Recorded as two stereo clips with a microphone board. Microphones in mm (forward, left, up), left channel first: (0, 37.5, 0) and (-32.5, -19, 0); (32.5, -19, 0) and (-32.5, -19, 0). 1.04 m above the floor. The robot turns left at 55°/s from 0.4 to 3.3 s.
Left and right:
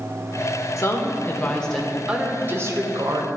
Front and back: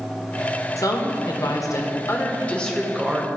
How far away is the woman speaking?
About 0.9 m.